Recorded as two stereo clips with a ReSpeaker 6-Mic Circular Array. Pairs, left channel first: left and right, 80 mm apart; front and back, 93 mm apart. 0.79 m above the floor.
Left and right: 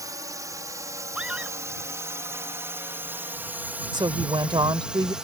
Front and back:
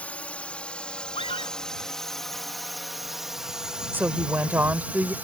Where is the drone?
70° right; by 5.2 s 155° right.